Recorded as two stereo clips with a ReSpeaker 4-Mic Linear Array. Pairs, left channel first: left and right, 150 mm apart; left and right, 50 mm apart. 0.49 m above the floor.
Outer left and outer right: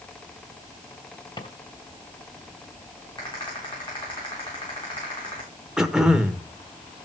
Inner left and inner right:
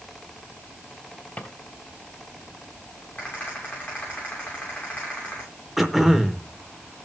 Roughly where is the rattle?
Left.